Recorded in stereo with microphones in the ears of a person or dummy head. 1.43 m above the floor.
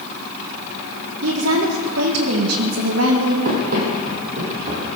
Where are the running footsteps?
55° right (ahead or behind), 3.5 m; by 4.9 s 35° right (ahead or behind), 3.5 m.